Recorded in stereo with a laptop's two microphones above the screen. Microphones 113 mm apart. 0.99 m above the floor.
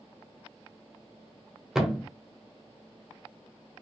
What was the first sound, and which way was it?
A thud, 5° right (ahead or behind).